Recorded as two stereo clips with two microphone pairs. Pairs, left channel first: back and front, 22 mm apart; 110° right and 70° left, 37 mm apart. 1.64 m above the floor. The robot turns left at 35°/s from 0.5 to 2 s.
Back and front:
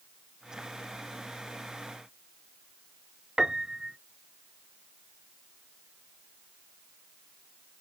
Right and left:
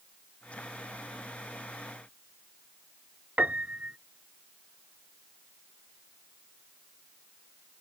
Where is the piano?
45° left.